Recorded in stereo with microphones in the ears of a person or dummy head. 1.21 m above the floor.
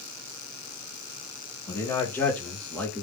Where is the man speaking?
20° left (ahead or behind), 2 m; by 3.0 s 10° left (ahead or behind), 1.3 m.